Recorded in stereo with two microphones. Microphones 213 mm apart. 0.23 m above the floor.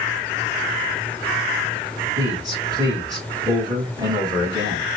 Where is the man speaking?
20° right (ahead or behind), 2 m.